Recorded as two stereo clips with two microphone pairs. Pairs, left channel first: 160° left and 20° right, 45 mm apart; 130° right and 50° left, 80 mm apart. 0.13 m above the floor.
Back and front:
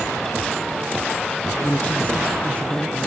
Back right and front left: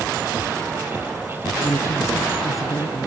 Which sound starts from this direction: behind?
A woman speaking, at 1.5 s.